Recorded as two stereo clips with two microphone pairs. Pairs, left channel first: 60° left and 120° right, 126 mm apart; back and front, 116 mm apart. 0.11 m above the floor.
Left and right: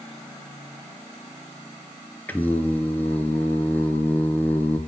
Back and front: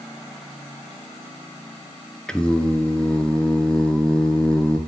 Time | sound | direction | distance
2.3 | singing | 110° left | 0.6 m